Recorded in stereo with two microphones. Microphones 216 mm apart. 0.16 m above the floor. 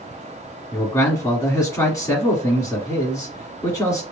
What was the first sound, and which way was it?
A man speaking, 15° left (ahead or behind).